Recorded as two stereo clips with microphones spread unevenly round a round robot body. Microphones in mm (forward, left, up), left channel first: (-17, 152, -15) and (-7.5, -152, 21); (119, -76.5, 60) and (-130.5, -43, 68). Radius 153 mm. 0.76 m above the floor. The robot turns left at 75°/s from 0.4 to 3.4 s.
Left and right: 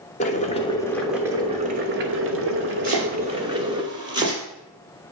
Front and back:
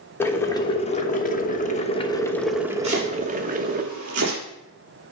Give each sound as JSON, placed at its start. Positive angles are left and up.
{"t": 0.2, "sound": "boiling", "azimuth_deg": 65, "distance_m": 1.1}
{"t": 2.8, "sound": "chopping", "azimuth_deg": -120, "distance_m": 4.0}